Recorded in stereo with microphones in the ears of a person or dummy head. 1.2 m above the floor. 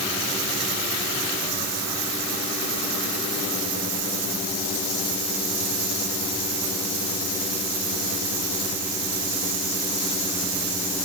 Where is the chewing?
I don't hear chewing.